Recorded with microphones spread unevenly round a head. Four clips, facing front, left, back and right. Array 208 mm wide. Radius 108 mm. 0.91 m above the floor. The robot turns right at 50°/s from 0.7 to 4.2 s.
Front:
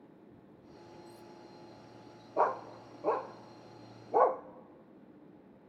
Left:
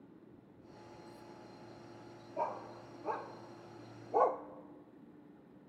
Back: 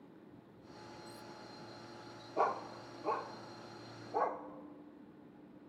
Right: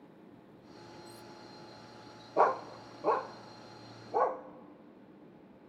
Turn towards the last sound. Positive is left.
turn(degrees=0)